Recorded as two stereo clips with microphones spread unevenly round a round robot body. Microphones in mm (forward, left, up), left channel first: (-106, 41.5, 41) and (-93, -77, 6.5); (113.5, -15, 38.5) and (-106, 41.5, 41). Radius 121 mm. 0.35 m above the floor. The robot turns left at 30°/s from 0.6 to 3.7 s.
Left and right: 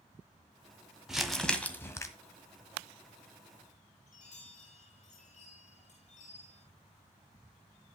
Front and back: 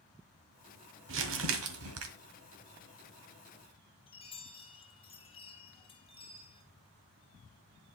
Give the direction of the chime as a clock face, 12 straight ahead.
10 o'clock.